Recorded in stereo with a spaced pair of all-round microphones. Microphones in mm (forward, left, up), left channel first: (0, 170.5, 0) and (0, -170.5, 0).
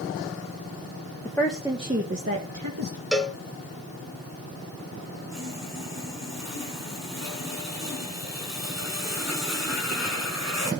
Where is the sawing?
50° right (ahead or behind), 7 m.